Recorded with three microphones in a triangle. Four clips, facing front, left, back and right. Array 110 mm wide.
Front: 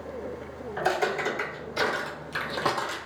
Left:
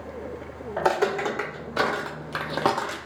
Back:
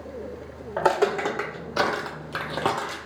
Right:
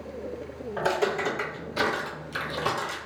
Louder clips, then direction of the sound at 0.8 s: Left 3 dB, back 5 dB; 160° left.